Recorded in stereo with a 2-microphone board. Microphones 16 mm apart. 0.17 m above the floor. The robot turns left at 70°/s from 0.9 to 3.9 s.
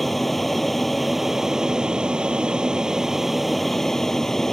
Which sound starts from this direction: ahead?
An aircraft, at 0.0 s.